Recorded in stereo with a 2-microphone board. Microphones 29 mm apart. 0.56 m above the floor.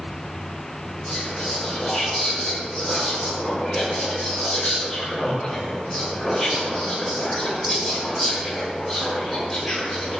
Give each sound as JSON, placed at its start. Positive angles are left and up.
{"t": 1.1, "sound": "whispering", "side_deg": 10, "distance_m": 2.5}